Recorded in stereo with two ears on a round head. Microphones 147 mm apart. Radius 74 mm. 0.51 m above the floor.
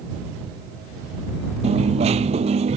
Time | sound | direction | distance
1.6 | a dropped coin | 40° right (ahead or behind) | ?